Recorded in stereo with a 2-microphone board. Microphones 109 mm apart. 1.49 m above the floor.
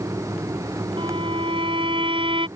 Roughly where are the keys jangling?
I don't hear keys jangling.